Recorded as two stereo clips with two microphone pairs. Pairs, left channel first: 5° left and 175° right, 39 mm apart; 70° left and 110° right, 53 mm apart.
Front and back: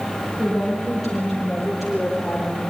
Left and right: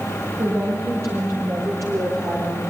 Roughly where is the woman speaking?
Right.